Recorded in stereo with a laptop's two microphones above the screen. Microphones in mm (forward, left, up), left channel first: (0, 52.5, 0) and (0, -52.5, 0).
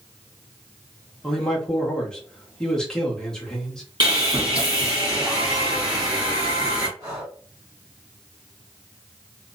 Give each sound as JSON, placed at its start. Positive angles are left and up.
{"t": 1.2, "sound": "a man speaking", "side_deg": 5, "distance_m": 0.8}
{"t": 4.0, "sound": "sawing", "side_deg": -45, "distance_m": 1.4}
{"t": 7.0, "sound": "breathing", "side_deg": -35, "distance_m": 1.5}